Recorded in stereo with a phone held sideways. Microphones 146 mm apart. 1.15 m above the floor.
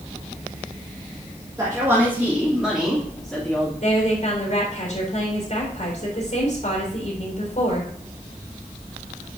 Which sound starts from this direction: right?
A man speaking, at 1.6 s.